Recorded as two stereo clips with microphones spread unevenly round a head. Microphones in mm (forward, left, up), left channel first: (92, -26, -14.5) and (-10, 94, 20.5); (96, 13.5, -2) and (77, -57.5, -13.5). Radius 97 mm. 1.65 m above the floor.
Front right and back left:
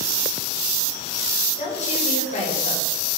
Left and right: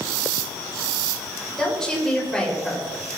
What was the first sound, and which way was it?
A woman speaking, 5° right.